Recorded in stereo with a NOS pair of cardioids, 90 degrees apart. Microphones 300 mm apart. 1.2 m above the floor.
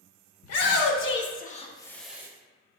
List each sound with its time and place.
0.4 s a shout: 60° left, 1.0 m; by 2.3 s 10° right, 0.7 m